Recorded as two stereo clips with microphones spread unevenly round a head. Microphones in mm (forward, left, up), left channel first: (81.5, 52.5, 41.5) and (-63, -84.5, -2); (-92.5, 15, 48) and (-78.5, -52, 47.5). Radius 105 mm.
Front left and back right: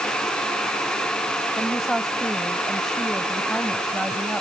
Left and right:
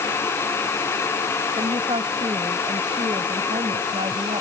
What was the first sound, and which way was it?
A woman speaking, 45° right.